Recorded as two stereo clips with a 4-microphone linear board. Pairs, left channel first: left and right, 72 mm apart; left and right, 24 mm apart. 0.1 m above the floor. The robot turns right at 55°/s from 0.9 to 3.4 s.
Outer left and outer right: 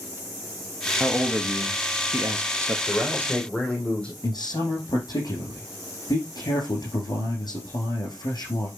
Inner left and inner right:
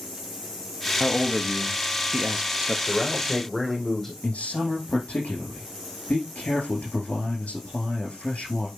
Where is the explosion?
No explosion in this recording.